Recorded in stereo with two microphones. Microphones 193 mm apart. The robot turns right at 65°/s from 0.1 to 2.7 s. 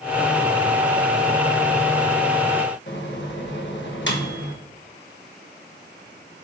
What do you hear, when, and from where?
2.9 s a microwave: 70° left (ahead or behind), 1.3 m